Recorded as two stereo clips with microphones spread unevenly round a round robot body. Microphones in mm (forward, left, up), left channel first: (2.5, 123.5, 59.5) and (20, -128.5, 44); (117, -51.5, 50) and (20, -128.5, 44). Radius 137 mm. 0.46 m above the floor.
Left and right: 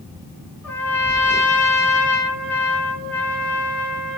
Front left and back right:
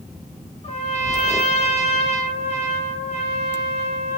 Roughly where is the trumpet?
Ahead.